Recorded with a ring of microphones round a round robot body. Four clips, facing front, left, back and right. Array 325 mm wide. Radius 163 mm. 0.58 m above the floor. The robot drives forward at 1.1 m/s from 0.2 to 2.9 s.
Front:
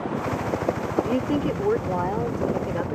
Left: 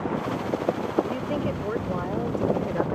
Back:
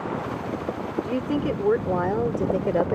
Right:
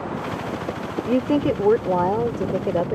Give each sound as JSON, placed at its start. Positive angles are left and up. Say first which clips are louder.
{"t": 1.0, "sound": "a woman speaking", "louder": "right 8 dB, back 2 dB", "azimuth_deg": -80}